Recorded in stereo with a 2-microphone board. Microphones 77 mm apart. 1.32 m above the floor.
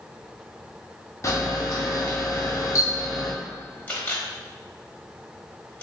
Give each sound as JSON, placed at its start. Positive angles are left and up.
{"t": 1.2, "sound": "a camera shutter", "side_deg": 40, "distance_m": 0.6}
{"t": 3.9, "sound": "a camera shutter", "side_deg": 25, "distance_m": 1.1}